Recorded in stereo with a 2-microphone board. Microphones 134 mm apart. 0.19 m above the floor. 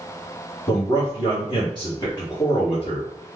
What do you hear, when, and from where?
0.7 s a man speaking: 35° left (ahead or behind), 1.6 m